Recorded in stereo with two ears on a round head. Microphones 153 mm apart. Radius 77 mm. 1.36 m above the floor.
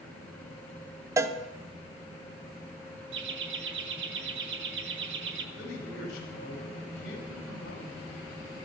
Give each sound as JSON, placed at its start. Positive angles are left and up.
{"t": 1.2, "sound": "a cowbell", "side_deg": -15, "distance_m": 0.5}
{"t": 3.1, "sound": "laughter", "side_deg": -70, "distance_m": 1.3}
{"t": 5.5, "sound": "a man speaking", "side_deg": 60, "distance_m": 3.5}